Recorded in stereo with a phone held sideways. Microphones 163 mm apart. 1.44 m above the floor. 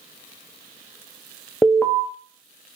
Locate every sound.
1.6 s an alarm: 10° left (ahead or behind), 0.6 m